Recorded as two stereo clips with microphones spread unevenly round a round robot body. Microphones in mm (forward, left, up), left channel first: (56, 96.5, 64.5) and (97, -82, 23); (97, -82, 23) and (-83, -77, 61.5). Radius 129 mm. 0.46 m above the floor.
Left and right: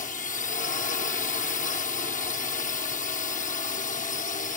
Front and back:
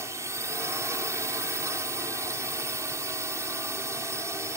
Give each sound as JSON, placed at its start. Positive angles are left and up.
{"t": 0.0, "sound": "a drone", "azimuth_deg": 95}